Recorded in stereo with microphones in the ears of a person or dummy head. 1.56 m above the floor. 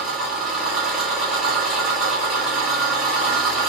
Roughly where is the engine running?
Centre.